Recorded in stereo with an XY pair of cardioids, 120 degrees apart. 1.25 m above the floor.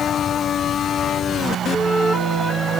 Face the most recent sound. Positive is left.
turn(degrees=25)